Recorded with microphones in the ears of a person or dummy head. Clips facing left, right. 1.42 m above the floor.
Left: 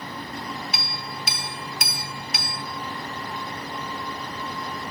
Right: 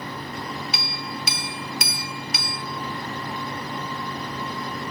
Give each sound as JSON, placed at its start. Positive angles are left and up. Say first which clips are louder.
{"t": 0.7, "sound": "a clink", "louder": "right 2 dB", "side_deg": -60, "distance_m": 0.6}